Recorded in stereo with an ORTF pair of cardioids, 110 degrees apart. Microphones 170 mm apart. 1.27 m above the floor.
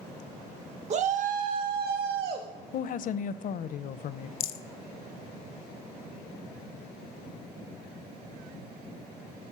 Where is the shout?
40° right, 1.1 m; by 2.5 s 70° right, 1.8 m.